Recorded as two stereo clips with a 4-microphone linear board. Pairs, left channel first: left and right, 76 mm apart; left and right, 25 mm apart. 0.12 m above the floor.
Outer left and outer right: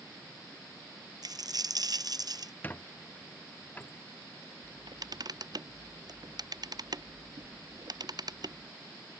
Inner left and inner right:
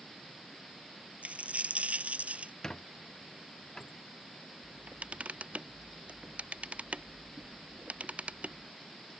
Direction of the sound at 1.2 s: 65° right (ahead or behind).